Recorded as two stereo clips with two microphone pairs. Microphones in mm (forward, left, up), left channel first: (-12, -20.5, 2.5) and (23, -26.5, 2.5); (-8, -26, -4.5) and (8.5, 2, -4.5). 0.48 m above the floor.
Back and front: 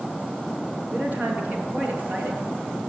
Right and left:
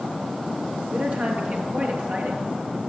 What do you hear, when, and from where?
0.9 s a woman speaking: 25° left, 7.5 m; by 2.8 s 30° left, 8.5 m